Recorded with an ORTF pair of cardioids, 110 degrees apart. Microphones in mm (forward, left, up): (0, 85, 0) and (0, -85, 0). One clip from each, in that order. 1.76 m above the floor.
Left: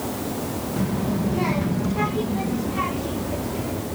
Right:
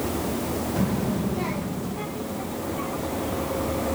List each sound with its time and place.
0.8 s a child speaking: 5° right; by 3.9 s 80° left